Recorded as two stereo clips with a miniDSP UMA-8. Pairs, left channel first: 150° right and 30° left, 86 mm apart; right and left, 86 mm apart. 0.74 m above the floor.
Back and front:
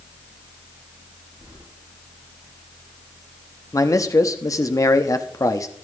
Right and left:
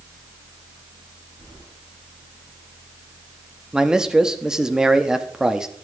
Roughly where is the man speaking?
Behind.